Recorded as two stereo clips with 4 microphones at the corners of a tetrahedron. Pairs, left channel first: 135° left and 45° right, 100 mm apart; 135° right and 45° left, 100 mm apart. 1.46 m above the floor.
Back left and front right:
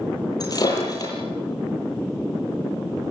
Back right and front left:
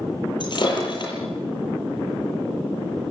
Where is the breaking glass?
175° right, 9 m.